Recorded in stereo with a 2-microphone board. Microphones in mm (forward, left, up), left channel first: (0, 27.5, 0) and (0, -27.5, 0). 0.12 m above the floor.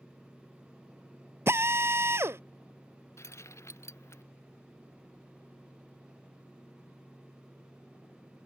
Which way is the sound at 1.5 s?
55° right (ahead or behind).